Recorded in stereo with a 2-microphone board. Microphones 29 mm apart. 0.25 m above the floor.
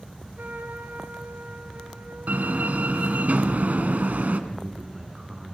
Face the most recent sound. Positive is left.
turn(degrees=-15)  # may be behind; listen again after turning